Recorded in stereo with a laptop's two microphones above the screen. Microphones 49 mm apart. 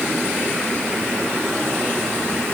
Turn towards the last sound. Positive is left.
No sound to turn to.